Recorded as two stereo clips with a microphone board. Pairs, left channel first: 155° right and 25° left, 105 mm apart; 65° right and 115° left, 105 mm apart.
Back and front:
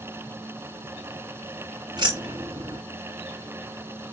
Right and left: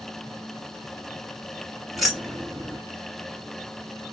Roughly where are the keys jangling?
Ahead left.